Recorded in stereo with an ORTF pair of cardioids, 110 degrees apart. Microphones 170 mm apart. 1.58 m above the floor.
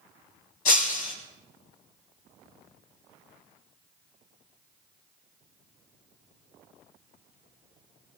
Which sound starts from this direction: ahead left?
Breaking glass, at 0.7 s.